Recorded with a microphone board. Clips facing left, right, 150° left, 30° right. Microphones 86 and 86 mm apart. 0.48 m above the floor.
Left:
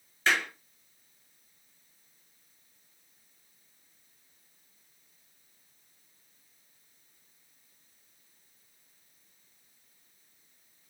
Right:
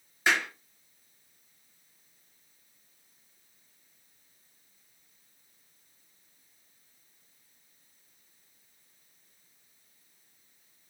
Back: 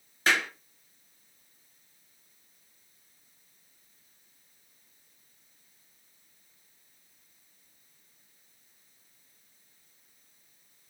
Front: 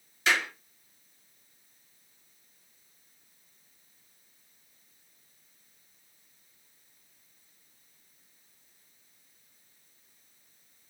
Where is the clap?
160° right, 2.5 m.